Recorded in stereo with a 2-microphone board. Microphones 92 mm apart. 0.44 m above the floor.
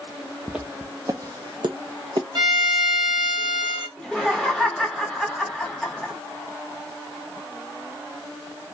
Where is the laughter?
5° left (ahead or behind), 1.2 m.